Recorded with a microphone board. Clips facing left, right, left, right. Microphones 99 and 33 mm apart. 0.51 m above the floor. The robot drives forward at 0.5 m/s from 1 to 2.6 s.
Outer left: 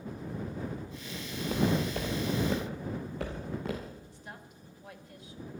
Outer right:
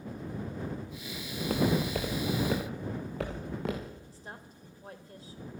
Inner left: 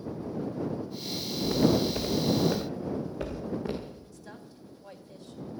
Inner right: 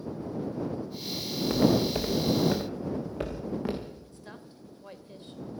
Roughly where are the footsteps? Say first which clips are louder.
Outer right 1 dB, inner right 1 dB; right.